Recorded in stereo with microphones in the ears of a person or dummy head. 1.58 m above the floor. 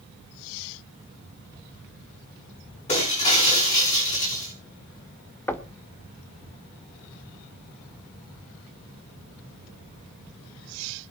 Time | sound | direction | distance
2.9 | breaking glass | 35° left (ahead or behind) | 5.5 m
5.5 | knocking | 10° left (ahead or behind) | 1.1 m